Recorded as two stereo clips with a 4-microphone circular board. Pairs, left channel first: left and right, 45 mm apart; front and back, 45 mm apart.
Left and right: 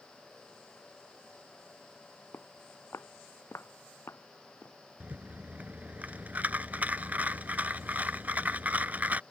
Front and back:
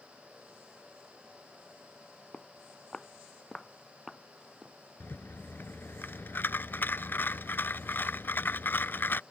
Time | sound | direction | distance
2.3 | footsteps | 65° left | ?
5.0 | a rattle | 35° right | ?